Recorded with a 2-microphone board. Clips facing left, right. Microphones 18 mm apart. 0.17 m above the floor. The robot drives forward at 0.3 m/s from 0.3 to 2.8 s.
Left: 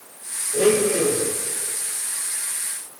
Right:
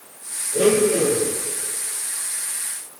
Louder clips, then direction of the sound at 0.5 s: Right 1 dB; 5° left (ahead or behind).